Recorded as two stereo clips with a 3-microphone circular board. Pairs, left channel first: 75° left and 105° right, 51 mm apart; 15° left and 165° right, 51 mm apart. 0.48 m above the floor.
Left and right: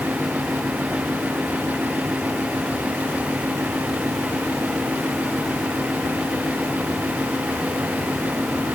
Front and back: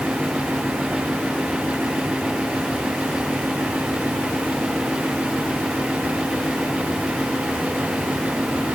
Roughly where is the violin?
I don't hear a violin.